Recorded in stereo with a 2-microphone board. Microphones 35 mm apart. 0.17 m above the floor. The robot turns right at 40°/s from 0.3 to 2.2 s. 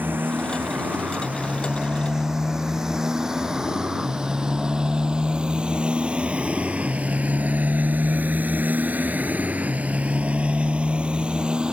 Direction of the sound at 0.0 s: 85° right.